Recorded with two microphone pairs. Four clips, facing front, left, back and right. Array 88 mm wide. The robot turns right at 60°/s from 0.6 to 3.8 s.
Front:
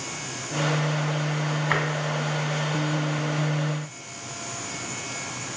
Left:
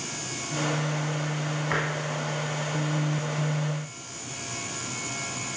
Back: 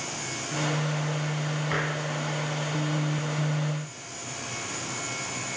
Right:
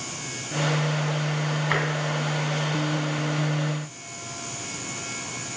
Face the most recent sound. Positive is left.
turn(degrees=115)